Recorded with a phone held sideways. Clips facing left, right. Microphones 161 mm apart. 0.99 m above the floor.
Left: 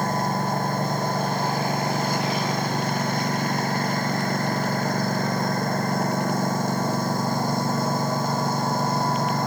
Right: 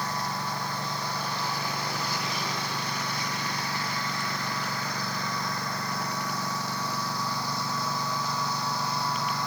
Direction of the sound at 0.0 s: 50° left (ahead or behind).